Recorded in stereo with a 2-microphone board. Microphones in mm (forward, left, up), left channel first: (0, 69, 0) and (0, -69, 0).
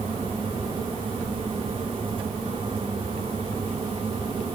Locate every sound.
Only background noise.